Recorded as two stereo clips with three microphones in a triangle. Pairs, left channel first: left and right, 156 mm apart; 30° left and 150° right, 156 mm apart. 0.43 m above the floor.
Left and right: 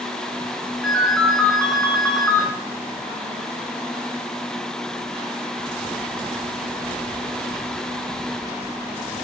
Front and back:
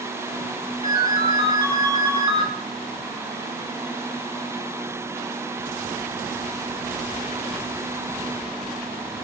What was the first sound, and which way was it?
A ringtone, straight behind.